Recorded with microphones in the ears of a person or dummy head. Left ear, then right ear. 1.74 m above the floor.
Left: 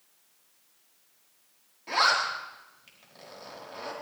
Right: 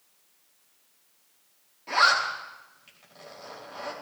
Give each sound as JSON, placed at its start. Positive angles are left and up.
{"t": 1.9, "sound": "a zipper", "side_deg": 0, "distance_m": 4.5}